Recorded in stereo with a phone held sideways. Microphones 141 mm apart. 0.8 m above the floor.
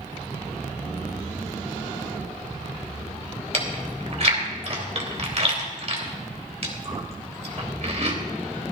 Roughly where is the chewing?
Right.